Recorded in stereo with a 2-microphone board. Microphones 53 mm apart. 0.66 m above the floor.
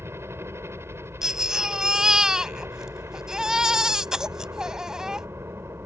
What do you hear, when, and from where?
0.0 s a helicopter: 55° right (ahead or behind)
1.2 s a baby crying: 10° right (ahead or behind)